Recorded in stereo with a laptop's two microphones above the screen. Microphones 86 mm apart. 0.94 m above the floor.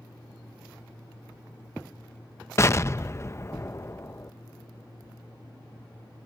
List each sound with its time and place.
0.0 s a fan: 80° left
2.6 s an explosion: 35° left (ahead or behind)